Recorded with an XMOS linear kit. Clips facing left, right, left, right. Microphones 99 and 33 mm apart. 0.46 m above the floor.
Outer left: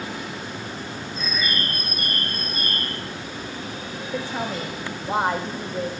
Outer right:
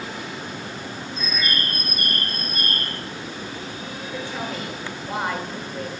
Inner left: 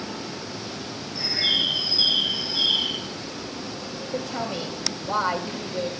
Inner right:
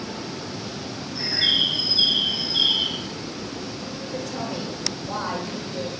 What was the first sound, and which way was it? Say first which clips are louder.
A bird: even, inner right 2 dB; 65° right (ahead or behind).